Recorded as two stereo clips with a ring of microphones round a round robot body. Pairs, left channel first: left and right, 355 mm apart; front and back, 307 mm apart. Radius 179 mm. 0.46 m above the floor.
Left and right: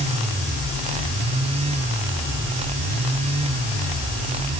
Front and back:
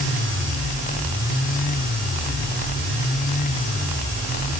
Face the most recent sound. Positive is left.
No sound to turn to.